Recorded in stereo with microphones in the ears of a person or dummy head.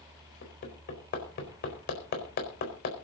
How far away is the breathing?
No breathing in this recording.